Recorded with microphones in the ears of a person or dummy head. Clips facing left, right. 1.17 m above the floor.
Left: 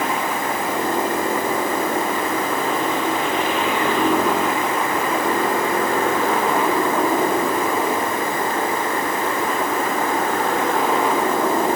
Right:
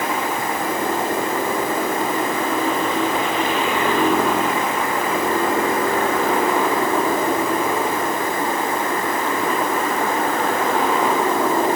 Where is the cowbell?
No cowbell in this recording.